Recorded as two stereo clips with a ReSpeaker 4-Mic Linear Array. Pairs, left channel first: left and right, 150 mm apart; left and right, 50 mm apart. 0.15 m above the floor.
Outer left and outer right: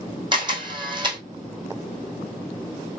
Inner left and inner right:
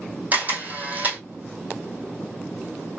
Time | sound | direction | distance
0.3 | a camera shutter | 30° right (ahead or behind) | 1.7 m